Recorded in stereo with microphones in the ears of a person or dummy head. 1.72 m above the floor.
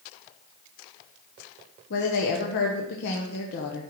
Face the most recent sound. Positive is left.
turn(degrees=55)  # may be behind; listen again after turning